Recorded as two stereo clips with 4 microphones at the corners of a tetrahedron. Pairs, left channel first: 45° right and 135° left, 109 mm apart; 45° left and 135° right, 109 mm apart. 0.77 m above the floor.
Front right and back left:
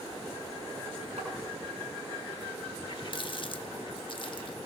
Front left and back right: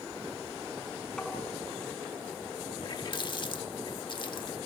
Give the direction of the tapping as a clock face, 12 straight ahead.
8 o'clock.